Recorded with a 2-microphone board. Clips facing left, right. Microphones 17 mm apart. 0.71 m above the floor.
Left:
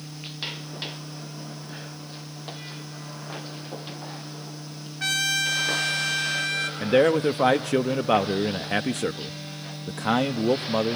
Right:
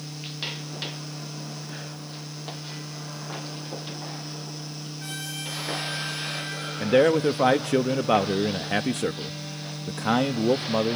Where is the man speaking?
Centre (ahead or behind), 0.5 m.